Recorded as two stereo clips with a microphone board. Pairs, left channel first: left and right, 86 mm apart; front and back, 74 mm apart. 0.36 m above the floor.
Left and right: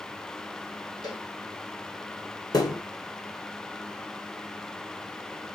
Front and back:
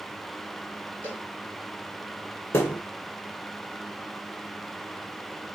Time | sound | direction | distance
1.0 | a cowbell | 55° left | 1.8 m
2.5 | a thud | 50° left | 1.6 m